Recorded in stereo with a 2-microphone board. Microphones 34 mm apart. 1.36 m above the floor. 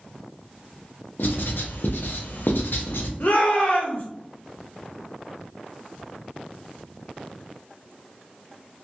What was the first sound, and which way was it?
Writing, 80° left.